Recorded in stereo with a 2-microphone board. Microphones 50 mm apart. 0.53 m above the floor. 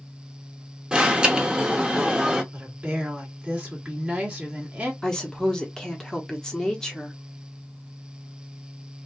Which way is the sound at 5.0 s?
15° left (ahead or behind).